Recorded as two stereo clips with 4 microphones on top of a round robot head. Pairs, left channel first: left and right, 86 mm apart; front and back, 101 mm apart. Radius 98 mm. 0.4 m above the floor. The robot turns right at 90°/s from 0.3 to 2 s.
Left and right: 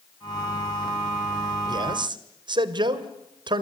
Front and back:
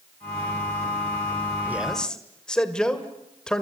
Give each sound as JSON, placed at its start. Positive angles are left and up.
{"t": 1.7, "sound": "a man speaking", "azimuth_deg": -110, "distance_m": 2.0}